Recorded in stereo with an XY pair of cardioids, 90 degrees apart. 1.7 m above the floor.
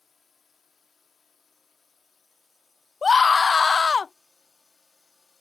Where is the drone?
40° left.